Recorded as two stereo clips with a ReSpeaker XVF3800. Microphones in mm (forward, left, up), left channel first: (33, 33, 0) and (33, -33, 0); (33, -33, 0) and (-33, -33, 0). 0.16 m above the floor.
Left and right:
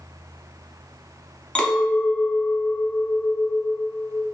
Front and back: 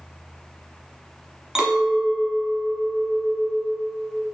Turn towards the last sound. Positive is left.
turn(degrees=115)